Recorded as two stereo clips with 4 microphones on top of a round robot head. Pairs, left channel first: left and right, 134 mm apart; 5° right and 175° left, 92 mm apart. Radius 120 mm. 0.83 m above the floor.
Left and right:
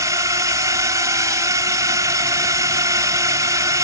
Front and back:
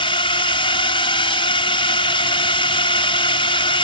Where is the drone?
25° right.